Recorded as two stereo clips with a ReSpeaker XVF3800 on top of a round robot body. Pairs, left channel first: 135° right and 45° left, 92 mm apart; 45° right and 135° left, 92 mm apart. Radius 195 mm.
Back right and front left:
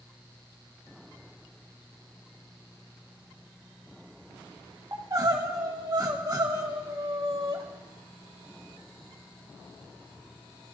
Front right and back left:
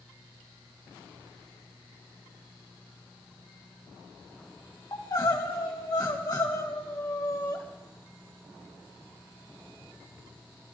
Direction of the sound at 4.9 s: Straight ahead.